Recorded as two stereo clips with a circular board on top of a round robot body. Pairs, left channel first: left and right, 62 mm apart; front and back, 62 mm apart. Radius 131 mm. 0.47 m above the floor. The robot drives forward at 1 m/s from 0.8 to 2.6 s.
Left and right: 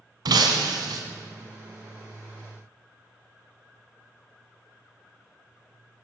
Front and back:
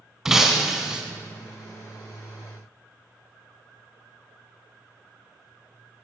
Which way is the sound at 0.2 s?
95° right.